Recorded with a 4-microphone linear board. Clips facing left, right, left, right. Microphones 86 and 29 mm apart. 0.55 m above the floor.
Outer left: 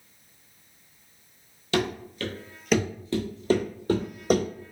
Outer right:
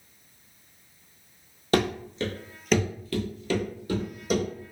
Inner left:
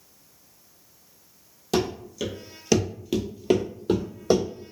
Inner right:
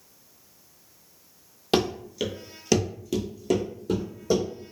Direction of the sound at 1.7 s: 45° right (ahead or behind).